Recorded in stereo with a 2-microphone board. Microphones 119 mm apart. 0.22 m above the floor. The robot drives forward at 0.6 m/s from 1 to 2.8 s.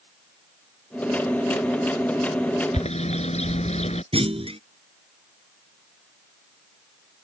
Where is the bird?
65° left (ahead or behind).